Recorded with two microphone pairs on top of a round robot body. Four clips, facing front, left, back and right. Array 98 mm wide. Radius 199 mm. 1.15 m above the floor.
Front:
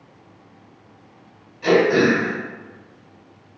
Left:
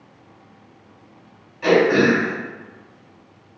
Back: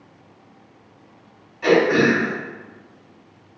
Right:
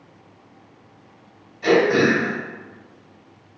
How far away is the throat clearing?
About 2.0 m.